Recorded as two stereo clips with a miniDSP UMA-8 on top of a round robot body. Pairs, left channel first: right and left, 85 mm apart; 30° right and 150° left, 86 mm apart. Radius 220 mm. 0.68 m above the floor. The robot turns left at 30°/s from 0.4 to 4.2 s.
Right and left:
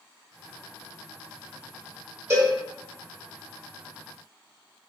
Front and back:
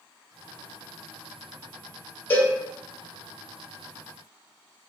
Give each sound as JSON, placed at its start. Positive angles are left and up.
{"t": 2.3, "sound": "a cowbell", "azimuth_deg": 35, "distance_m": 1.0}